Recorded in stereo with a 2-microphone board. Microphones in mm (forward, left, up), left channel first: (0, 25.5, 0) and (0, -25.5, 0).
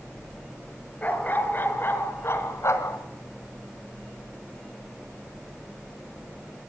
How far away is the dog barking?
About 4.5 m.